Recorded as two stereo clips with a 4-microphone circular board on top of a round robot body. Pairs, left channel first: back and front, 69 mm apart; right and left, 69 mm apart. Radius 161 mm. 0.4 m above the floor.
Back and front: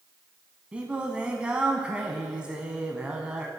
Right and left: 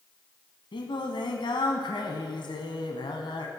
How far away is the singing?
About 0.6 m.